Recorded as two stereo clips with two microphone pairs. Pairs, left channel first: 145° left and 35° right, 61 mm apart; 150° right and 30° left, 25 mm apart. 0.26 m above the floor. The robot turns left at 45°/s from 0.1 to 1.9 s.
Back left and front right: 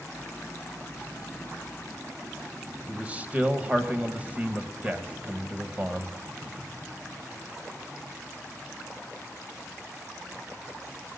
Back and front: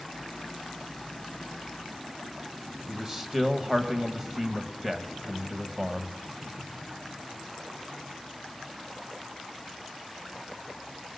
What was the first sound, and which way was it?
A man speaking, 15° right.